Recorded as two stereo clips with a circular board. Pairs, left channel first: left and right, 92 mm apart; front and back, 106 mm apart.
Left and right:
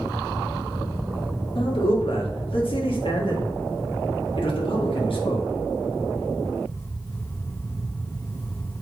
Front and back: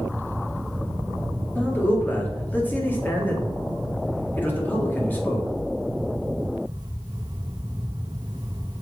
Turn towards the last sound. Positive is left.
turn(degrees=75)